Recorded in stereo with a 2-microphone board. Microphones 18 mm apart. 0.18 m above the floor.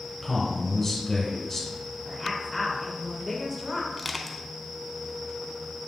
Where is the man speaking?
20° left (ahead or behind), 1.7 m.